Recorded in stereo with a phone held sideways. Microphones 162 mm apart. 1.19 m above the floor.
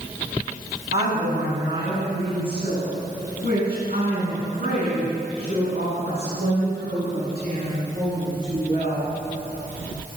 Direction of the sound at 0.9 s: 70° right (ahead or behind).